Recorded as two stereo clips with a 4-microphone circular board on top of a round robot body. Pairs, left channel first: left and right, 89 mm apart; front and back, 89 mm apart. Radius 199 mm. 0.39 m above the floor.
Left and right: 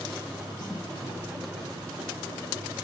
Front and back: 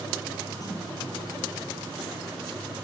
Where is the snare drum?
55° left, 9.5 m.